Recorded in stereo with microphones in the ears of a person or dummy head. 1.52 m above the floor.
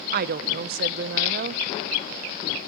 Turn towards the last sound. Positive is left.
turn(degrees=-60)  # may be behind; listen again after turning